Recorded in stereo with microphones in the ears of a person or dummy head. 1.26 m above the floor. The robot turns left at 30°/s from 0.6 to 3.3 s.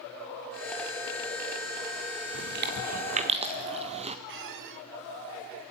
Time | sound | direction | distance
2.3 | chewing | 60° right (ahead or behind) | 1.5 m
4.3 | a squeak | 60° right (ahead or behind) | 1.5 m